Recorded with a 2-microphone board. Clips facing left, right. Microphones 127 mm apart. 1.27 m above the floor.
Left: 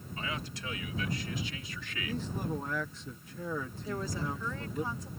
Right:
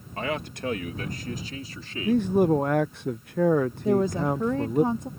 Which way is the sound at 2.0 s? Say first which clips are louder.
Right 16 dB; 70° right (ahead or behind).